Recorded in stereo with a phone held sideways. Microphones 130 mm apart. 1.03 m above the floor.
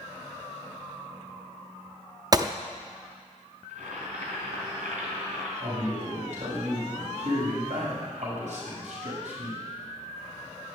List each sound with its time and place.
2.3 s a gunshot: 30° right (ahead or behind), 0.5 m
3.7 s boiling: 75° right (ahead or behind), 4 m
5.6 s a man speaking: 65° right (ahead or behind), 7 m